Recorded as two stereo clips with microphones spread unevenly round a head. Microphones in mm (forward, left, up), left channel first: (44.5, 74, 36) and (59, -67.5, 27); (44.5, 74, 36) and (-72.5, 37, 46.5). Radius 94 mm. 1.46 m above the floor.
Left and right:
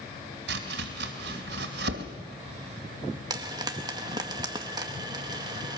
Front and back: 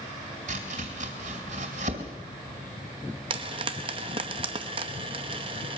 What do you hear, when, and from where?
0.5 s chopping: 115° right, 2.5 m
3.3 s frying: 145° right, 0.9 m